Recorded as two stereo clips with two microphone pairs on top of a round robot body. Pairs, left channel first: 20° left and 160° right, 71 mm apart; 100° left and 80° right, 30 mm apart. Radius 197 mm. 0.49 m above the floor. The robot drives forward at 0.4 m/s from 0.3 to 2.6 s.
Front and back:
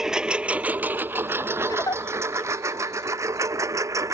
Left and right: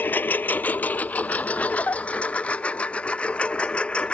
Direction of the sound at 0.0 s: 115° left.